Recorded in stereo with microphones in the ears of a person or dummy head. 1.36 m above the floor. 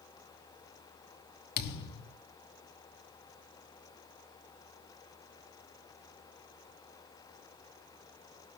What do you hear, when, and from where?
1.6 s a thud: 55° left (ahead or behind), 1.2 m